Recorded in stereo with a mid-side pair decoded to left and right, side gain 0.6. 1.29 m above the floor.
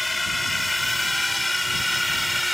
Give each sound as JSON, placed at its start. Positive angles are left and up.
{"t": 0.0, "sound": "a drone", "azimuth_deg": 10}